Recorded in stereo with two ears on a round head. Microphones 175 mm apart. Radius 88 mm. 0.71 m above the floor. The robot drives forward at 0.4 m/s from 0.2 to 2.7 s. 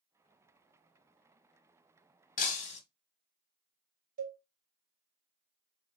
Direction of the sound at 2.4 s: 40° left (ahead or behind).